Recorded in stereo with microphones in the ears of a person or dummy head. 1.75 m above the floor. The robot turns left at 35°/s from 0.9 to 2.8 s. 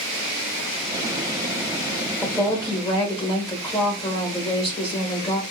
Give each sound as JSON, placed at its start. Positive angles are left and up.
{"t": 2.2, "sound": "a woman speaking", "side_deg": 10, "distance_m": 1.3}